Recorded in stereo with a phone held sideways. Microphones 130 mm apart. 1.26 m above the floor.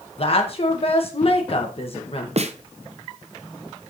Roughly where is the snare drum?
Right.